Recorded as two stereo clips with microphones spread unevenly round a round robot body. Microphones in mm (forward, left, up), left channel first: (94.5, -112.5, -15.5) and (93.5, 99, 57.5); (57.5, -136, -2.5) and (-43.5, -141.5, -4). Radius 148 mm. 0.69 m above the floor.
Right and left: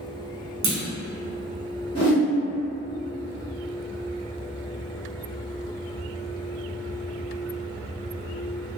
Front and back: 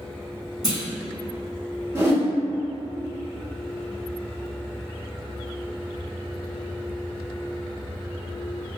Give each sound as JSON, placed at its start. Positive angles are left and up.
{"t": 0.6, "sound": "a clunk", "azimuth_deg": 95, "distance_m": 0.9}
{"t": 1.9, "sound": "a whoosh", "azimuth_deg": -120, "distance_m": 1.4}